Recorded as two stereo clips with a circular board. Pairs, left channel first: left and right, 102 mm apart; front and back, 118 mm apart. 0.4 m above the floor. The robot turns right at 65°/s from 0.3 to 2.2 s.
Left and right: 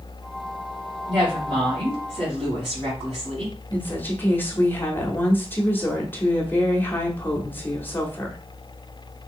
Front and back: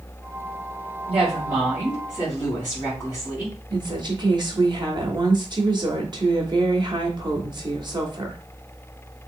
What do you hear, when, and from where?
1.1 s a woman speaking: 155° right, 2.5 m; by 3.5 s 80° right, 2.5 m
3.7 s a woman speaking: 150° left, 1.0 m